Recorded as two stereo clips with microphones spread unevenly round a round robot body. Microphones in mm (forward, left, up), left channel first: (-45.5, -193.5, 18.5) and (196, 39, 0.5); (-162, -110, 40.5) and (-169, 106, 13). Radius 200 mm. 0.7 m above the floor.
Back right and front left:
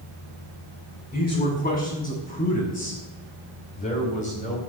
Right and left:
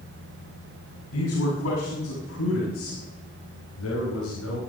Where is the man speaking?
70° right, 7.5 m.